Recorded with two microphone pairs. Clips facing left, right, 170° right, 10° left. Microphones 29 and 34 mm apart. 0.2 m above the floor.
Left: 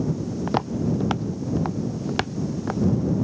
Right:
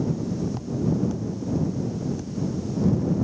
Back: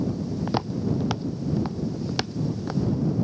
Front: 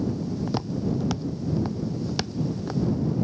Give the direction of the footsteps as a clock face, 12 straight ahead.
8 o'clock.